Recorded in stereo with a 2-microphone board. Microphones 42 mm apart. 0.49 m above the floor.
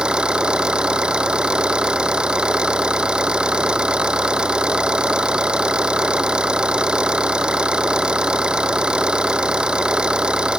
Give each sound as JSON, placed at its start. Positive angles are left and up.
{"t": 0.0, "sound": "an engine running", "side_deg": -20}